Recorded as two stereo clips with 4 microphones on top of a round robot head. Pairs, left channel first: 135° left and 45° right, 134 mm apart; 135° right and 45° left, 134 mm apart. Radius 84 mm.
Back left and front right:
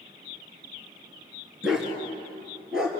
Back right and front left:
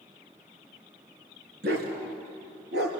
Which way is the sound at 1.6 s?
40° left.